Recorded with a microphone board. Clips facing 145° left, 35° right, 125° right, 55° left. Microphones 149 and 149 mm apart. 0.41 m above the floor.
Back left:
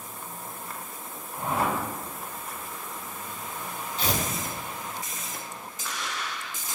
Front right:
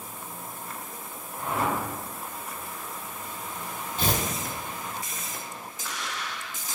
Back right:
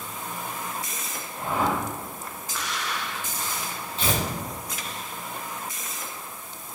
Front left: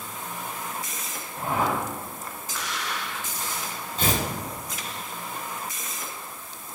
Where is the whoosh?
95° left, 1.3 m.